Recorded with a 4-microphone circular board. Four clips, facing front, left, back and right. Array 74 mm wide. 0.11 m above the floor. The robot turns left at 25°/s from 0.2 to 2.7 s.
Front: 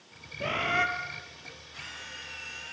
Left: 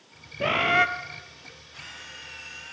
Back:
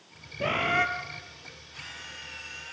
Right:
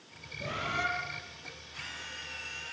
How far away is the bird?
About 1.6 m.